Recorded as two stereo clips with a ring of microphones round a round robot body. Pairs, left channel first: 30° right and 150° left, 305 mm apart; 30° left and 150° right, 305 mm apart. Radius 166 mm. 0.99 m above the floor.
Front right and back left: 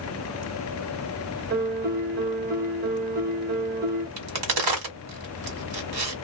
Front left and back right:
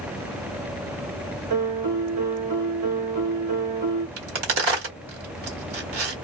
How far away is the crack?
About 1.6 m.